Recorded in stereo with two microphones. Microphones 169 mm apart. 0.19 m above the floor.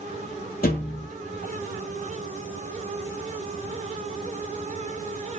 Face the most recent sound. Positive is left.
turn(degrees=70)  # may be behind; listen again after turning